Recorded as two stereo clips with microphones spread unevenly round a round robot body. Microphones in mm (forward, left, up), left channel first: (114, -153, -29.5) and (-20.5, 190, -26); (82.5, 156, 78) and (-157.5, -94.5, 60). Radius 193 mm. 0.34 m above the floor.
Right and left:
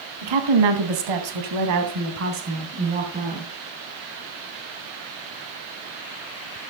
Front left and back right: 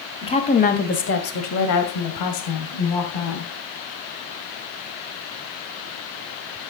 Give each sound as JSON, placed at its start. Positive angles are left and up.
{"t": 0.2, "sound": "a woman speaking", "azimuth_deg": 125, "distance_m": 3.0}